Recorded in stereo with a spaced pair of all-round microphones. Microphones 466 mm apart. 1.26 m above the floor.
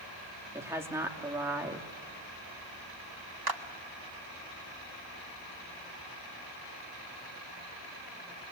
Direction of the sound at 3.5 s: 50° right (ahead or behind).